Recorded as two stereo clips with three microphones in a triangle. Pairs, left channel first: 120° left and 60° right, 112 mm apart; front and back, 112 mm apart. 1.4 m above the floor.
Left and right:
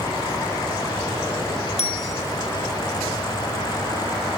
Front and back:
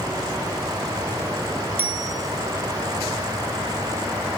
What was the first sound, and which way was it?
A bicycle bell, 110° left.